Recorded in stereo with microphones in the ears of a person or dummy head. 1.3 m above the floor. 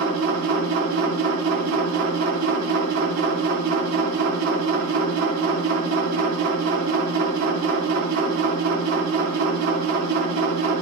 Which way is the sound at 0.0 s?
50° right (ahead or behind).